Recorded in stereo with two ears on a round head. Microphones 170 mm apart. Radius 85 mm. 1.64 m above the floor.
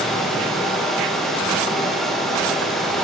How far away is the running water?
About 4 m.